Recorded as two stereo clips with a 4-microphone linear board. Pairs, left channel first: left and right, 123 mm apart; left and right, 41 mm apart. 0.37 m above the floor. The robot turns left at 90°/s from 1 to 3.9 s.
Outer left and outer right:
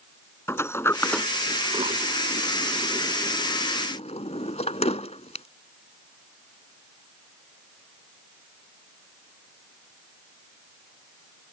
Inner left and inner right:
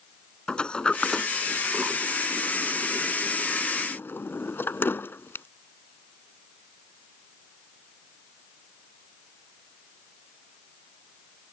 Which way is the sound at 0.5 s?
20° left (ahead or behind).